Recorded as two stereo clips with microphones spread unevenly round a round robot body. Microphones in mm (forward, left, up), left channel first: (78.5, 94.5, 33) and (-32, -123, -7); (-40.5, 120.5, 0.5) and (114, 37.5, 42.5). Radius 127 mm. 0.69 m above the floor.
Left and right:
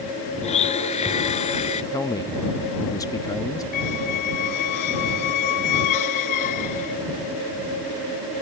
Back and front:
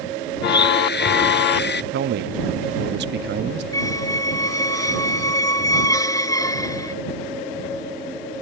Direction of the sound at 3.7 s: 80° left.